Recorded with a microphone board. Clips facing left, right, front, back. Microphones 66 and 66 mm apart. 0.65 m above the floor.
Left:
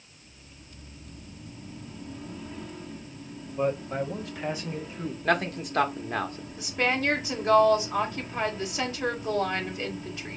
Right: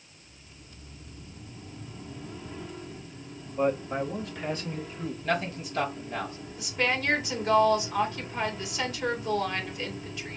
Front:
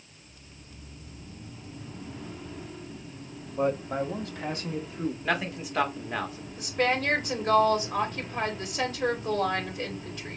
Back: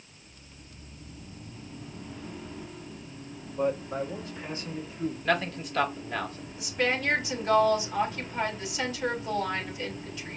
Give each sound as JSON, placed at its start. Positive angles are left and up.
{"t": 3.6, "sound": "a man speaking", "azimuth_deg": -20, "distance_m": 1.1}
{"t": 5.2, "sound": "a man speaking", "azimuth_deg": 75, "distance_m": 1.1}
{"t": 6.6, "sound": "a woman speaking", "azimuth_deg": 40, "distance_m": 2.0}